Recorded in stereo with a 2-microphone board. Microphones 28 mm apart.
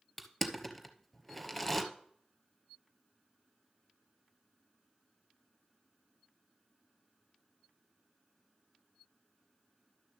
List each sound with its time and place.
0.2 s crushing: 5° left (ahead or behind), 0.9 m